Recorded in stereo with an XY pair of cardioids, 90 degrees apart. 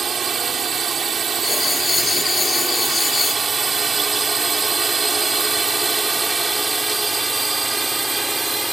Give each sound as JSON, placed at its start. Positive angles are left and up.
{"t": 0.0, "sound": "a drone", "azimuth_deg": -45}
{"t": 1.4, "sound": "writing", "azimuth_deg": 40}